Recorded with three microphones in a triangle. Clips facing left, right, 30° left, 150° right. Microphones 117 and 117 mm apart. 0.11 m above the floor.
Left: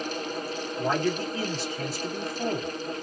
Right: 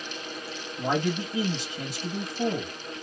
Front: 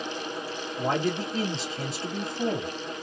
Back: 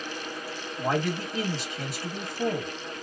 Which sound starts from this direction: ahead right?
A man speaking, at 0.8 s.